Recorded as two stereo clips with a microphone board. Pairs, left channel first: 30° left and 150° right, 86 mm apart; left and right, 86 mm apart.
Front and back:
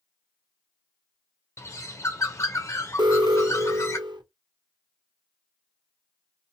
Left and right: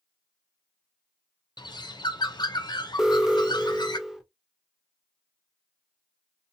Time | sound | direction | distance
1.6 | a bird | 80° left | 0.5 m
3.0 | an alarm | 175° right | 0.5 m